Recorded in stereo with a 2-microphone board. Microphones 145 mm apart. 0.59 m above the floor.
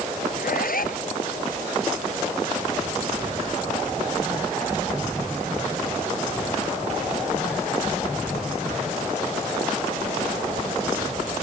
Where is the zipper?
80° left.